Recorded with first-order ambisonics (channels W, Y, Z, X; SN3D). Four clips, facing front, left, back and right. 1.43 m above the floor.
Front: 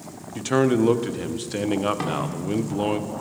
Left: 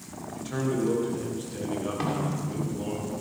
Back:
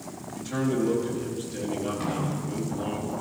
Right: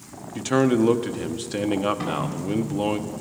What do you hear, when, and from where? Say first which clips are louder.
0.3 s a man speaking: right 9 dB, front 7 dB; 50° right, 0.6 m
2.0 s a snare drum: right 2 dB, front 3 dB; 25° left, 2.5 m